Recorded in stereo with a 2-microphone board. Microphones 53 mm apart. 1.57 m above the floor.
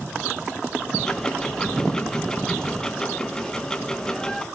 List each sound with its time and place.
1.0 s ticking: 15° left (ahead or behind), 1.6 m